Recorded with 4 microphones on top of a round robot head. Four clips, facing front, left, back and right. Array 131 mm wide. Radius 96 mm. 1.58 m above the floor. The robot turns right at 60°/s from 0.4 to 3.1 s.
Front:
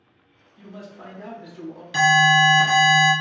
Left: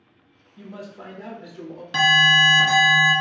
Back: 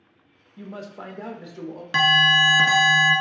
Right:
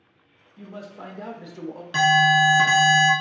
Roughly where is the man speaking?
Behind.